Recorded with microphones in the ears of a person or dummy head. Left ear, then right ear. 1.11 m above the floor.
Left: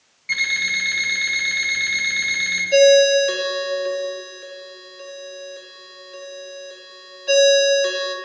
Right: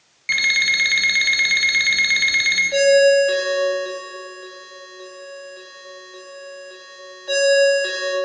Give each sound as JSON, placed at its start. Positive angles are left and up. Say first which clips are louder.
{"t": 0.3, "sound": "an alarm clock", "louder": "right 3 dB", "side_deg": -25, "distance_m": 0.7}
{"t": 2.7, "sound": "a ringtone", "louder": "left 2 dB", "side_deg": 30, "distance_m": 1.4}